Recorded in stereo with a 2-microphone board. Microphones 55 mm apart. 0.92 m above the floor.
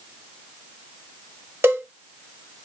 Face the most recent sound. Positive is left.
turn(degrees=-45)  # may be behind; listen again after turning